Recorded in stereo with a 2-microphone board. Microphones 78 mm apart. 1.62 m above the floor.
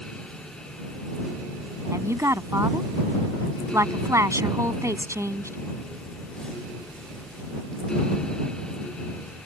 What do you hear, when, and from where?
1.9 s a woman speaking: 40° right (ahead or behind)